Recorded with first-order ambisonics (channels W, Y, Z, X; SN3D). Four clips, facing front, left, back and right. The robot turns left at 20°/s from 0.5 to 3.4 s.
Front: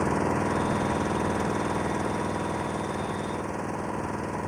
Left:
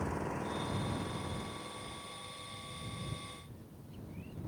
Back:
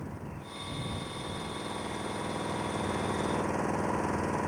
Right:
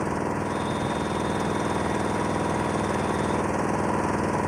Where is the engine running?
35° right; by 4.5 s 90° right.